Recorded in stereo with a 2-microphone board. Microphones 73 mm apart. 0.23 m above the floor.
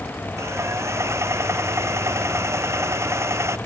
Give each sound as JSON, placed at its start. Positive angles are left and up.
{"t": 0.4, "sound": "sawing", "side_deg": -40}